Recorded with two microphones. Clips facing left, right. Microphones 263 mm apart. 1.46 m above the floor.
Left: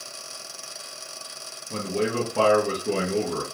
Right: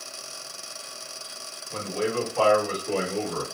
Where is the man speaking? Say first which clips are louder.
Left 2 dB; 60° left (ahead or behind), 0.9 m.